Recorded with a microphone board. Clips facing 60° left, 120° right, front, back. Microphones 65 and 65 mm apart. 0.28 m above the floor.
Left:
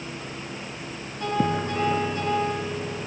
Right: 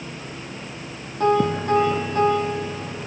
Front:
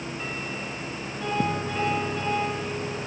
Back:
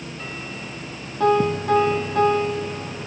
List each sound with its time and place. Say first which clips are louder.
1.2 s a piano: right 6 dB, back 9 dB; 160° right, 7.5 m